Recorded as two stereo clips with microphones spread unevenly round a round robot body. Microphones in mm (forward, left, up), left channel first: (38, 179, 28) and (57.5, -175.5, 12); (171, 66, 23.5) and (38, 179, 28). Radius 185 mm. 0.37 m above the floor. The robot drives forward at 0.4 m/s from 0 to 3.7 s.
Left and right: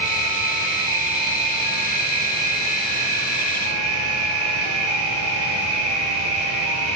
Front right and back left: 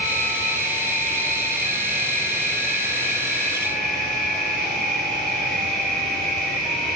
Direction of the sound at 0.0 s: 115° right.